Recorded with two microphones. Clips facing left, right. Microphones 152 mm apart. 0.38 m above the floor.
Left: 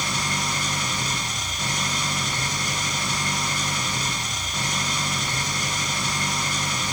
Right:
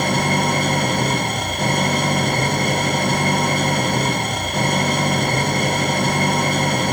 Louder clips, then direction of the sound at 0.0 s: Right 11 dB; 60° right (ahead or behind).